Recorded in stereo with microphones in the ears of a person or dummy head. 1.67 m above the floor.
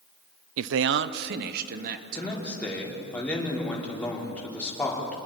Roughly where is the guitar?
No guitar in this recording.